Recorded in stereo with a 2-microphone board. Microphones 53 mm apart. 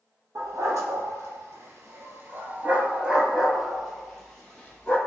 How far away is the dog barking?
About 1.7 m.